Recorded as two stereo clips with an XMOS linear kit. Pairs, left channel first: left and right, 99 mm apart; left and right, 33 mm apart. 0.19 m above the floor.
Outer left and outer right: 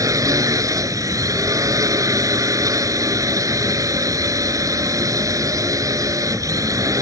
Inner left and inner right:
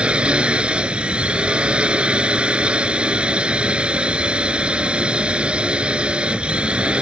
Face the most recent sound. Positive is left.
turn(degrees=-35)  # may be behind; listen again after turning